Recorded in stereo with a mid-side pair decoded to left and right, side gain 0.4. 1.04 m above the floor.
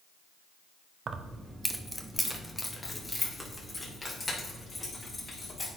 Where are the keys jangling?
55° right, 0.7 m; by 5.7 s 30° left, 4 m.